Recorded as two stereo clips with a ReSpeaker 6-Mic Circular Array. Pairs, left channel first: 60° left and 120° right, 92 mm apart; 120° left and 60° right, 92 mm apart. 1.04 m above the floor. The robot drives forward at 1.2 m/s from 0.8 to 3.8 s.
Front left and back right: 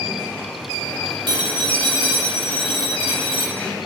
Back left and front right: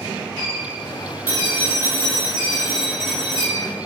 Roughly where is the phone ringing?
Behind right.